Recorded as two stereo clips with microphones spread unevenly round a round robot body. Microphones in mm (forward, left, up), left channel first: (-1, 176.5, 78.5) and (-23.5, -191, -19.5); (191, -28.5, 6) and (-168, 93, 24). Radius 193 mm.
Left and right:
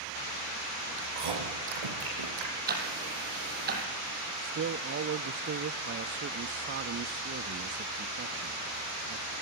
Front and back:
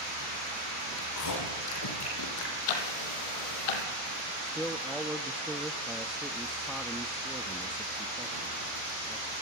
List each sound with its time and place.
1.0 s chewing: 70° right, 8.5 m
2.7 s ticking: 25° right, 4.5 m
4.4 s a man speaking: 105° right, 0.6 m